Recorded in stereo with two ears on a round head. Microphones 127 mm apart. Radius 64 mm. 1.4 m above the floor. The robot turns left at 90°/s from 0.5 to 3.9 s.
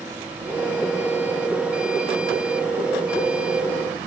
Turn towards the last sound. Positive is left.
No sound to turn to.